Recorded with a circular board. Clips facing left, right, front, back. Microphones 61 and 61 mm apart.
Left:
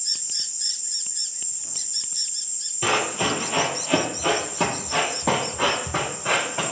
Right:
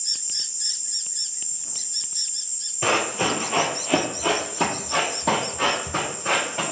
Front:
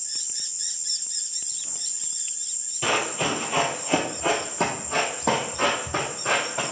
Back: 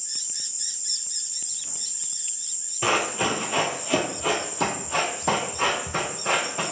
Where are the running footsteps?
125° right, 0.8 m; by 6.6 s 15° left, 1.9 m.